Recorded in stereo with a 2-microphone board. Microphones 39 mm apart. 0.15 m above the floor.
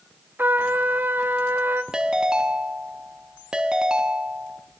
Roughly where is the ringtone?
Right.